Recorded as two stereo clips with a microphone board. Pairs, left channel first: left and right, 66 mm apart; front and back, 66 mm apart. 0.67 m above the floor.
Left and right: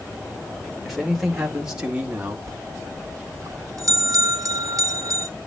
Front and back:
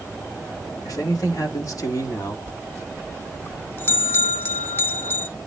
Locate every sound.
0.8 s a man speaking: straight ahead, 3 m; by 2.4 s 20° right, 1.9 m
2.5 s a bell: 55° right, 1.0 m